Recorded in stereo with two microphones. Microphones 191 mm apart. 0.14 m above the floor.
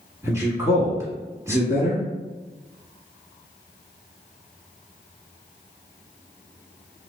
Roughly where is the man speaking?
Centre.